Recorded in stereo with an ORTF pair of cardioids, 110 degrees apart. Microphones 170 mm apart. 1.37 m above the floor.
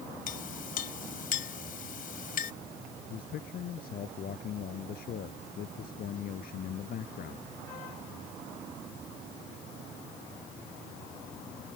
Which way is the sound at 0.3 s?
55° left.